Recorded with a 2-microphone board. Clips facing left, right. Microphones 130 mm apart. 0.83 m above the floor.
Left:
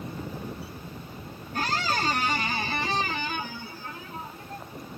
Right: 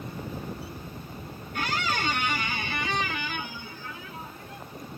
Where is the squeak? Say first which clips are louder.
Left 2 dB; 35° left (ahead or behind), 0.5 m.